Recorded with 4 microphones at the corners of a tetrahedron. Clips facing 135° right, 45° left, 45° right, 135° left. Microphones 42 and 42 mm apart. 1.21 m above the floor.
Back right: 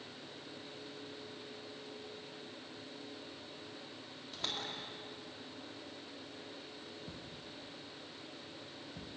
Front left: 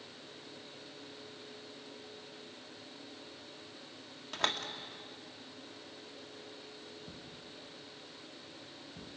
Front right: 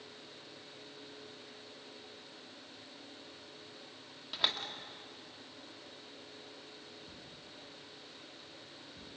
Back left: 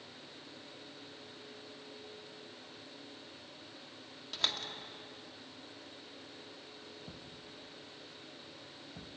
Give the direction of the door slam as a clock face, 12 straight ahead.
11 o'clock.